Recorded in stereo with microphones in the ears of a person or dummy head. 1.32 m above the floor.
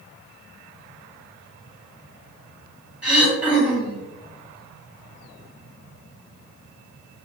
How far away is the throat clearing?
About 1.4 m.